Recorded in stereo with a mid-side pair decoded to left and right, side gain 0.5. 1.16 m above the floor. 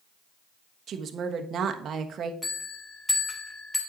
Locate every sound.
0.9 s a woman speaking: 50° right, 1.3 m
2.4 s a bell: 10° left, 3 m